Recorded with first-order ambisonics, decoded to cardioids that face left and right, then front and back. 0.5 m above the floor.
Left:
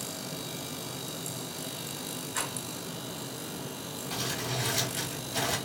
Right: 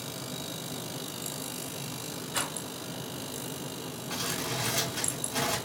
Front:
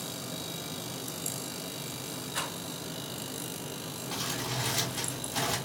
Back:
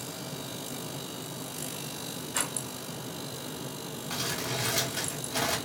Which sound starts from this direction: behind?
Crumpling, at 4.1 s.